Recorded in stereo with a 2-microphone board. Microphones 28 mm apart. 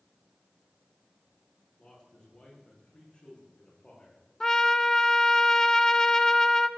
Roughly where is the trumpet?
Left.